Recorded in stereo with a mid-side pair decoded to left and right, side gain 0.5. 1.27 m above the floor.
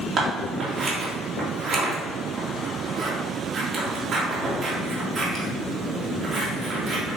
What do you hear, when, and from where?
0.2 s scissors: 50° right, 2.5 m